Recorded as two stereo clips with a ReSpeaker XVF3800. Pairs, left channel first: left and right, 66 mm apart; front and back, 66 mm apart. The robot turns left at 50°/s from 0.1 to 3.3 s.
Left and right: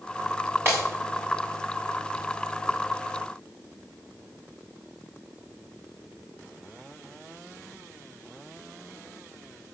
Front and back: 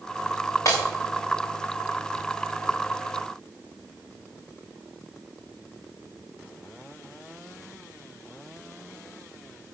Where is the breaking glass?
40° right, 5 m; by 0.8 s 45° right, 5 m.